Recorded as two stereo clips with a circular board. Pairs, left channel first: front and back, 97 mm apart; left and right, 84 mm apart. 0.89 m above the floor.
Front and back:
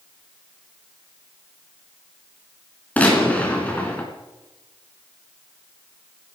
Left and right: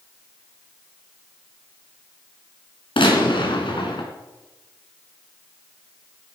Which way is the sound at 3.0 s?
75° left.